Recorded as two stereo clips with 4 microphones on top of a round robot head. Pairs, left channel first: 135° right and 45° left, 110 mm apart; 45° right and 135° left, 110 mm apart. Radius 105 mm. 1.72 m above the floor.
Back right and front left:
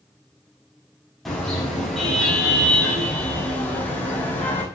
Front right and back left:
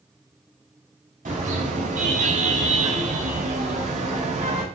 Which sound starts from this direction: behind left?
A car horn, at 1.2 s.